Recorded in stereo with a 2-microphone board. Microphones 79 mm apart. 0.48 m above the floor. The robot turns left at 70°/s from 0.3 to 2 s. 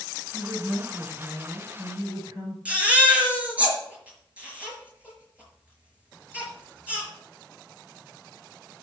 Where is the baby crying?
15° right (ahead or behind), 5 m.